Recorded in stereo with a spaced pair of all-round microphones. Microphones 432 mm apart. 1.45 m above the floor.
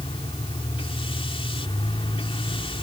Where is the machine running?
10° left (ahead or behind).